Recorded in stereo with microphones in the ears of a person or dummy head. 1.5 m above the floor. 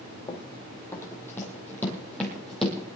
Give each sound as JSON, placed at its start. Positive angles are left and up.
{"t": 0.3, "sound": "running footsteps", "side_deg": 20, "distance_m": 2.5}